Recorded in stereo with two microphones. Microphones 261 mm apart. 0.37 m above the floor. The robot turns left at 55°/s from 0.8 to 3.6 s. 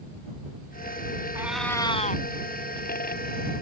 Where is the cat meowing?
170° right; by 2.2 s 140° left.